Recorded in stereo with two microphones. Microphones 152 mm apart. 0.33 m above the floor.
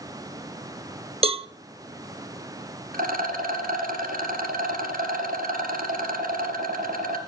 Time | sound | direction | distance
1.2 | a cowbell | 40° right (ahead or behind) | 0.6 m
2.9 | a rattle | 70° right (ahead or behind) | 2.5 m